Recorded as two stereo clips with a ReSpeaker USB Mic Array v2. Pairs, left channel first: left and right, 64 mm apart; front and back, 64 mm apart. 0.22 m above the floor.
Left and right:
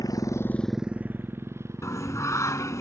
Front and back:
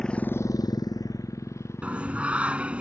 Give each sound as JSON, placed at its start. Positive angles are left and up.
{"t": 0.0, "sound": "a motorcycle", "azimuth_deg": 80}
{"t": 1.8, "sound": "singing", "azimuth_deg": 110}